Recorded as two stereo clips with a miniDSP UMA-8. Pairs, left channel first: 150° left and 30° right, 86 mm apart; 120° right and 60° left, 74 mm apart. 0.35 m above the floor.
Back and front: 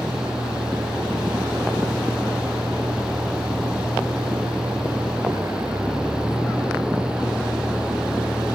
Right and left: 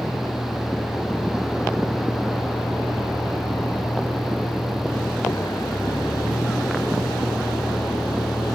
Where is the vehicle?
75° right; by 8.6 s 95° right.